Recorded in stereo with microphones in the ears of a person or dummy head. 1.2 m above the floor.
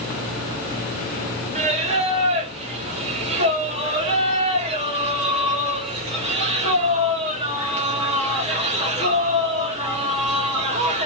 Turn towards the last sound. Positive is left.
turn(degrees=-30)  # may be behind; listen again after turning